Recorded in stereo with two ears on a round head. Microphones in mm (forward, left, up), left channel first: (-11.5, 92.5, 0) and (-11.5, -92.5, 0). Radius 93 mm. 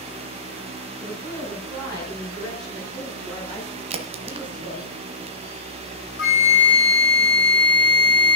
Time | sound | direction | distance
1.0 | a woman speaking | 10° left (ahead or behind) | 7.5 m
3.9 | a crack | 30° right (ahead or behind) | 1.4 m
6.2 | a flute | 60° left (ahead or behind) | 4.5 m